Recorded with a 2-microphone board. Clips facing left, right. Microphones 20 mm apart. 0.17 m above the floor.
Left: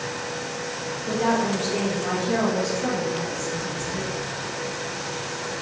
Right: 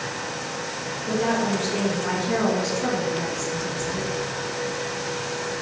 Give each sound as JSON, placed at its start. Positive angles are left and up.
{"t": 1.1, "sound": "a woman speaking", "side_deg": 5, "distance_m": 2.5}